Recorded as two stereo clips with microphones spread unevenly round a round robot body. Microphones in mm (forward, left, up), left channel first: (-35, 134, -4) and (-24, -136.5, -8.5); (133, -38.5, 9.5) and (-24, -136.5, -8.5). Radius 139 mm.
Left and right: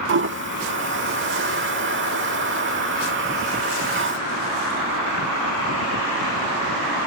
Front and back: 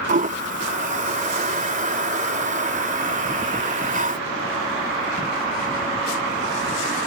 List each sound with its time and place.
0.1 s a toilet flushing: 120° right